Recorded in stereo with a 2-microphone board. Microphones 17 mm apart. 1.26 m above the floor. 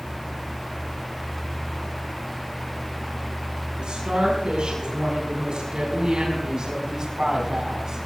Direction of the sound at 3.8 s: 80° right.